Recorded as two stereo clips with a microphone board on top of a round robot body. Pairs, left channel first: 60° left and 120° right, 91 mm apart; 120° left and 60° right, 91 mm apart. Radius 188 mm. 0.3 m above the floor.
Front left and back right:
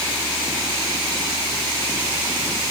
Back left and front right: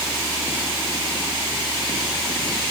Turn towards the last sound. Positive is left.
No sound to turn to.